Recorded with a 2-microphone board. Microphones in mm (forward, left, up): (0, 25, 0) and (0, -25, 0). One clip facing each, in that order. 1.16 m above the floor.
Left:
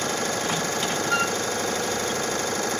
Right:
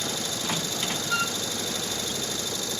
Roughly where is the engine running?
Left.